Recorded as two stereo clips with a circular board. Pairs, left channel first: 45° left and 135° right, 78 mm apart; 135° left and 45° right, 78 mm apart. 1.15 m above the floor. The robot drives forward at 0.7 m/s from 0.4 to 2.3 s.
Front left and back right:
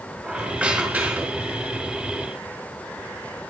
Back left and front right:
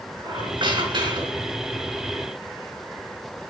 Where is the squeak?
55° right, 4 m; by 1.6 s 65° right, 3.5 m.